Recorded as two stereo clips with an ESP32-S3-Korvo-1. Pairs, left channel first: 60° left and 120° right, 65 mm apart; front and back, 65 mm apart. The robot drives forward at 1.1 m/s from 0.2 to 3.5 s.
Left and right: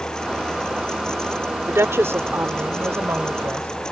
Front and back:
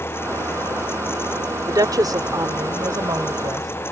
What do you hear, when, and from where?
1.7 s a woman speaking: 165° right; by 3.7 s 170° right